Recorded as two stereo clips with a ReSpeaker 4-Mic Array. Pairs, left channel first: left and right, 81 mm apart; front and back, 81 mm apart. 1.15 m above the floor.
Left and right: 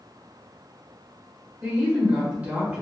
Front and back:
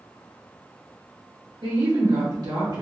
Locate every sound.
1.6 s a woman speaking: 155° right, 1.0 m